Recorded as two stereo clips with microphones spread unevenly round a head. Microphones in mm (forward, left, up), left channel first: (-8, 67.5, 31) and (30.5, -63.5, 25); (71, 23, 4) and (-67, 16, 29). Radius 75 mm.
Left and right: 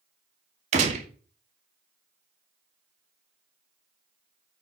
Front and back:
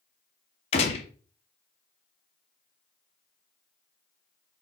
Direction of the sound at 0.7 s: 50° right.